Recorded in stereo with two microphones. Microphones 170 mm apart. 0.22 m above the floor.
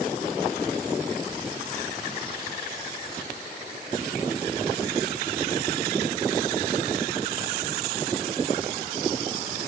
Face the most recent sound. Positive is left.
No sound to turn to.